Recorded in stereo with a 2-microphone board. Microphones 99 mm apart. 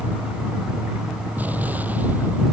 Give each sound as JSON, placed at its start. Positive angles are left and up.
{"t": 1.4, "sound": "an explosion", "side_deg": -15}